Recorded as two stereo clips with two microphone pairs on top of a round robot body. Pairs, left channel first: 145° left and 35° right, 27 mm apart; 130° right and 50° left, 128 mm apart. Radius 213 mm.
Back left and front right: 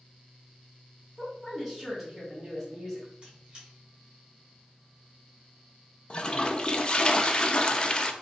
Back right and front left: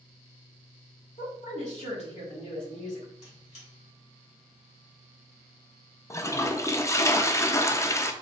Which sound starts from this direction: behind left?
A toilet flushing, at 6.1 s.